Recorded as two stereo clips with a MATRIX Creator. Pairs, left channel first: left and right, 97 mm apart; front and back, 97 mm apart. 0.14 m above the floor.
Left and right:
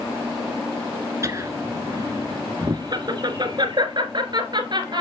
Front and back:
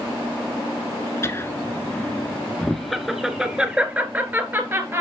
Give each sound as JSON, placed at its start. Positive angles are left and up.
{"t": 1.2, "sound": "laughter", "azimuth_deg": -50, "distance_m": 1.6}